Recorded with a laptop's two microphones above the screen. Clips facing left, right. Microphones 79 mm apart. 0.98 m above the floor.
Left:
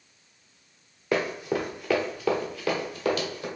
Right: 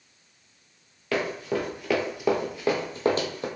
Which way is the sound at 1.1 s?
20° left (ahead or behind).